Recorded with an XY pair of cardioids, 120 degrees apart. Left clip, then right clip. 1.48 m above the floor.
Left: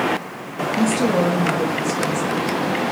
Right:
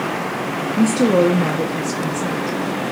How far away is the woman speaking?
About 0.5 m.